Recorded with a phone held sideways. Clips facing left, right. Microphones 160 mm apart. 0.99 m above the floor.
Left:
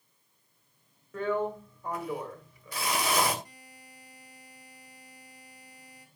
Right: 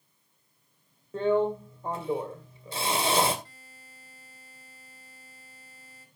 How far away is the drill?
About 2.5 m.